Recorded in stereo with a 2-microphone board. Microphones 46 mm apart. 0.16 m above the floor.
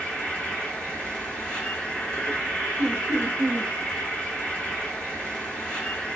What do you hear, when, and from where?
0.0 s an insect: 20° left (ahead or behind), 1.7 m
2.8 s laughter: 40° right (ahead or behind), 1.3 m